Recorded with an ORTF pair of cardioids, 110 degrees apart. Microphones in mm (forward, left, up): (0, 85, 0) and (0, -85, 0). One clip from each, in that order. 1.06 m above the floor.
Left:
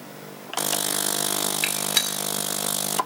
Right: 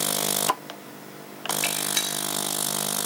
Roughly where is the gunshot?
Ahead left.